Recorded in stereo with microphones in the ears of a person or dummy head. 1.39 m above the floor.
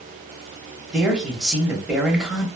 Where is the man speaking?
Centre (ahead or behind), 1.1 m.